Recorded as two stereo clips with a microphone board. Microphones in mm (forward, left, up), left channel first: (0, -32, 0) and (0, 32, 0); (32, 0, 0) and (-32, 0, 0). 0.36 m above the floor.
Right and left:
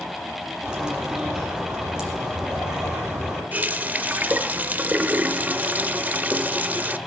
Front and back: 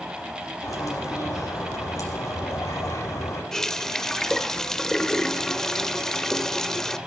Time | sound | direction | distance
0.6 | a bird | 10° left | 4.5 m
3.5 | a running tap | 75° left | 0.6 m